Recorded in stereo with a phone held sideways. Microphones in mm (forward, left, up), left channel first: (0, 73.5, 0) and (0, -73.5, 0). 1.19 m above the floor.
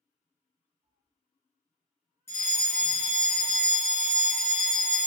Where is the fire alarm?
15° left (ahead or behind), 1.2 m.